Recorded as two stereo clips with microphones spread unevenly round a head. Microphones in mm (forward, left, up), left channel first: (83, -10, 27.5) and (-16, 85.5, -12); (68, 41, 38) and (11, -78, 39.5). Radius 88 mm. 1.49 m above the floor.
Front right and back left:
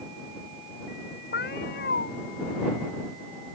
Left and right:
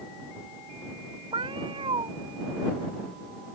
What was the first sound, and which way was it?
A cat meowing, 65° right.